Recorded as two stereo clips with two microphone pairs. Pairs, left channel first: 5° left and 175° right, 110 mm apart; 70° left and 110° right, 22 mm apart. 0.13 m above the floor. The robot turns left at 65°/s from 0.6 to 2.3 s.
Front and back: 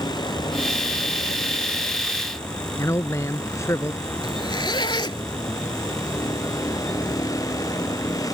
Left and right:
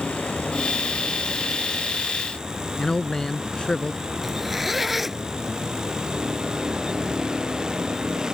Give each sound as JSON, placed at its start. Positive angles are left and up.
{"t": 0.0, "sound": "a vehicle", "azimuth_deg": 55}
{"t": 2.8, "sound": "a man speaking", "azimuth_deg": 45}
{"t": 4.2, "sound": "a zipper", "azimuth_deg": -35}